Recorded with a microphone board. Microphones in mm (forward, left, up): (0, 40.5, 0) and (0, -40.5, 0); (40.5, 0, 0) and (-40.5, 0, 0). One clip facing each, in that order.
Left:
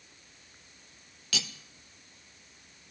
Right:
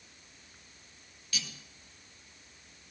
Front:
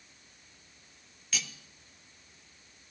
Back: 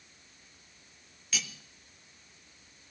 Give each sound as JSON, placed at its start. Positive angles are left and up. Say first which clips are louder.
{"t": 1.3, "sound": "cutlery clinking", "louder": "left 5 dB, even", "azimuth_deg": 90, "distance_m": 0.9}